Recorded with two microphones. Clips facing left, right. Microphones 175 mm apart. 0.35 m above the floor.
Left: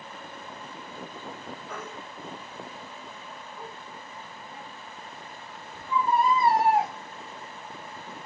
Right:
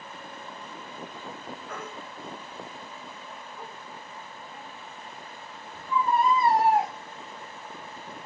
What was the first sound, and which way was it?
A baby crying, centre (ahead or behind).